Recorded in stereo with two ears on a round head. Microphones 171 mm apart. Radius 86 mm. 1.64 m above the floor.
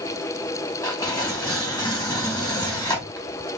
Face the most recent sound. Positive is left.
turn(degrees=20)  # may be behind; listen again after turning